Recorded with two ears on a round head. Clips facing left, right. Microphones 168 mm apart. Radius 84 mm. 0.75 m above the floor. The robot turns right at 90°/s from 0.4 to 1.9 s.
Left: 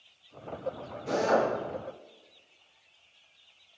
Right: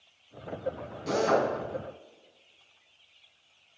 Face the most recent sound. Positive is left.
turn(degrees=-50)